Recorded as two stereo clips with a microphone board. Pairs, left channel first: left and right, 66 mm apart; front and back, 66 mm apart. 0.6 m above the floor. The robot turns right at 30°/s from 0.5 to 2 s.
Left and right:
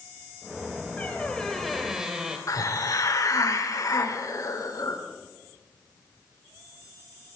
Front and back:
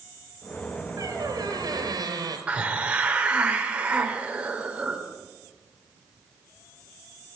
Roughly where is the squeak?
Behind.